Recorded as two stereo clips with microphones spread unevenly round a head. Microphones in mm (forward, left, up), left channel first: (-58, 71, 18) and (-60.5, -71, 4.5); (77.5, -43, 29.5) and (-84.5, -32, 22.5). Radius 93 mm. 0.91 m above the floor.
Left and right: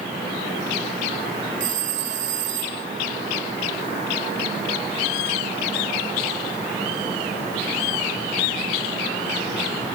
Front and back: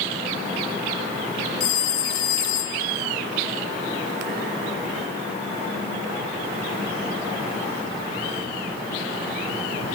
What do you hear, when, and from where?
1.6 s a phone ringing: 40° right